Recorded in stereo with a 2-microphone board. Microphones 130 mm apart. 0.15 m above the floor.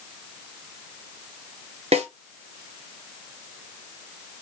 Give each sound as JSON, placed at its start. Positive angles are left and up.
{"t": 1.9, "sound": "a snare drum", "side_deg": -55, "distance_m": 0.7}